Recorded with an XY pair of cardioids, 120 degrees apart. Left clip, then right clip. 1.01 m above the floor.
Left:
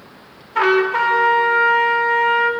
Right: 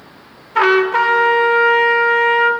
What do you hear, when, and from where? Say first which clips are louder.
0.6 s a trumpet: right 3 dB; 20° right, 1.5 m